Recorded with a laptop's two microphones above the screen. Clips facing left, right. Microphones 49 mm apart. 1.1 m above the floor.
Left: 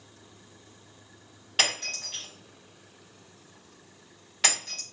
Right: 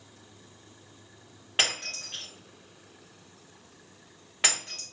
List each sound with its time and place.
1.6 s breaking glass: 25° right (ahead or behind), 1.6 m